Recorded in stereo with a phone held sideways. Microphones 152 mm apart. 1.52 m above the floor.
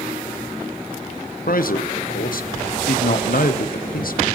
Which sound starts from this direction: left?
A man speaking, at 1.5 s.